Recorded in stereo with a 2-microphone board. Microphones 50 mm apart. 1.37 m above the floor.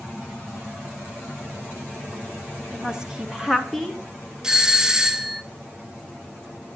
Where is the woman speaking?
20° right (ahead or behind), 1.5 m; by 4.0 s 10° left (ahead or behind), 0.9 m.